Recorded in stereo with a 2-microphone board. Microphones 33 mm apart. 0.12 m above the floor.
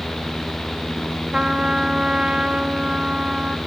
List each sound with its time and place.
1.3 s a trumpet: 20° right (ahead or behind), 1.0 m